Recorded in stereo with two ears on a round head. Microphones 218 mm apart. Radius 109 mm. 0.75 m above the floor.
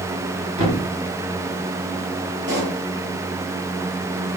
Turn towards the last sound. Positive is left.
turn(degrees=-50)  # may be behind; listen again after turning